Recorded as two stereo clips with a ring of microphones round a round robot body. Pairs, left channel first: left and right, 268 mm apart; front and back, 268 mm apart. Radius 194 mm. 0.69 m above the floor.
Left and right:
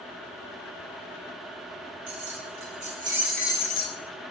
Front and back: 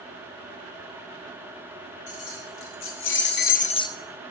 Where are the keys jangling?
40° right, 1.3 m; by 4.0 s 75° left, 0.7 m.